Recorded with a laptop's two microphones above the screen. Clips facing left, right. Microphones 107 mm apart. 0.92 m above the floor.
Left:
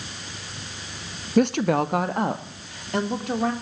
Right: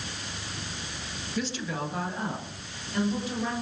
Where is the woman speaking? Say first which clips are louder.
Left 13 dB; 55° left (ahead or behind), 0.7 m; by 3.5 s 60° left (ahead or behind), 2.5 m.